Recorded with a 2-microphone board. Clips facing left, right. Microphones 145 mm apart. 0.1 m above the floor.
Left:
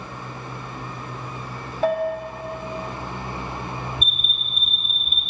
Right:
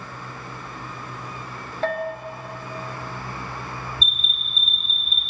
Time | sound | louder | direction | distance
1.8 | a bell | left 4 dB | 15° left (ahead or behind) | 0.8 m
4.0 | an alarm | left 2 dB | 15° left (ahead or behind) | 1.7 m